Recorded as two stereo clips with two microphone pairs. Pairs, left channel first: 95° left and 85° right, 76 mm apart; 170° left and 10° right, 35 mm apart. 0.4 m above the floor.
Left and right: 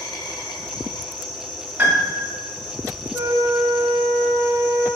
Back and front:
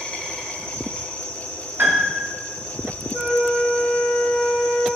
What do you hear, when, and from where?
0.0 s an insect: 105° left, 1.0 m
1.8 s a piano: 20° right, 1.0 m
3.1 s a flute: 95° left, 1.7 m